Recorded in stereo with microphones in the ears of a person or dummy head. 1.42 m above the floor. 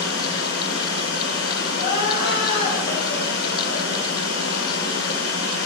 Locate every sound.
0.0 s running water: 60° left (ahead or behind), 3 m
1.8 s crying: 50° left (ahead or behind), 7.5 m